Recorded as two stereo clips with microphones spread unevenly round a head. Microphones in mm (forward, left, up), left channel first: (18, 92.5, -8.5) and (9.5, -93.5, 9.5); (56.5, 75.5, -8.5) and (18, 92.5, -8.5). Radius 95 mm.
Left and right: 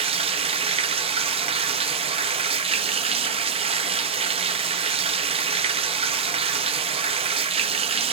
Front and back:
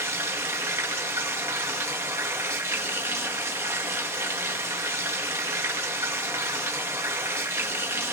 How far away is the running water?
About 0.8 m.